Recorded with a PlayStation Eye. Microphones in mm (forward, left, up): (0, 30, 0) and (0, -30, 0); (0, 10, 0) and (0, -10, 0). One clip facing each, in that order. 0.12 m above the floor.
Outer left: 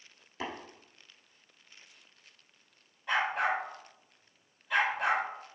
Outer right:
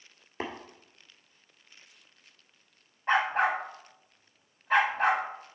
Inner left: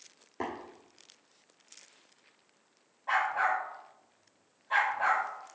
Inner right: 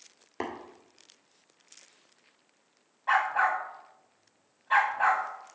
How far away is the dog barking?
About 2.5 m.